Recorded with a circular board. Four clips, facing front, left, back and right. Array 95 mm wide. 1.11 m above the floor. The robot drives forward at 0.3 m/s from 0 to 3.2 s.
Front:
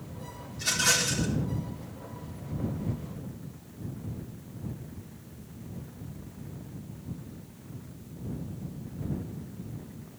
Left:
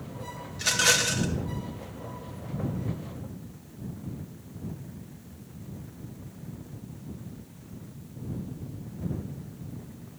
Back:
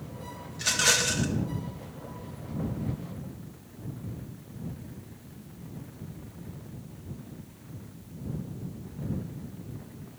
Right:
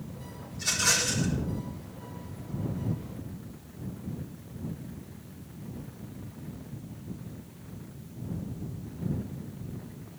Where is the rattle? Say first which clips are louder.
Left 5 dB, back 1 dB; 120° left, 1.5 m; by 1.3 s 130° left, 1.7 m.